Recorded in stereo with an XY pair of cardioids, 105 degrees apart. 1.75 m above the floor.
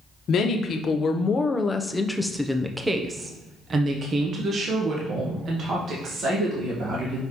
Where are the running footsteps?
I don't hear running footsteps.